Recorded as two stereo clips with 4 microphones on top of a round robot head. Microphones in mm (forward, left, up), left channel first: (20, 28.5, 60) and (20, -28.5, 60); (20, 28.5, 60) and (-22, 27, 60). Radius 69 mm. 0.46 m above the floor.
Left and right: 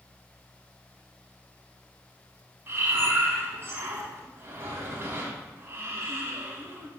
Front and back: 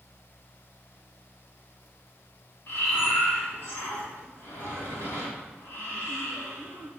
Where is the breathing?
40° right, 2.5 m.